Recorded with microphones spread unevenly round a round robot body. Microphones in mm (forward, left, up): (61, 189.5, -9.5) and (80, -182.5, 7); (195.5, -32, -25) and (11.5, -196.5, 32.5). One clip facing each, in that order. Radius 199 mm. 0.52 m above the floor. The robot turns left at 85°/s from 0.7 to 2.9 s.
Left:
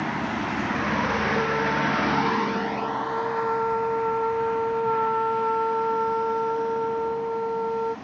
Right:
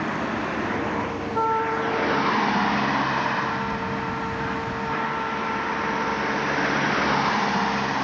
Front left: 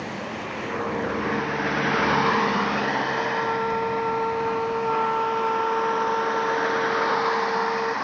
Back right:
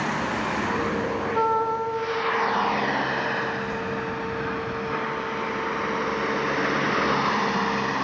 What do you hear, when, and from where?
0.0 s a vehicle: 170° left; by 8.1 s 90° right
1.3 s a trumpet: 150° right; by 8.0 s 75° left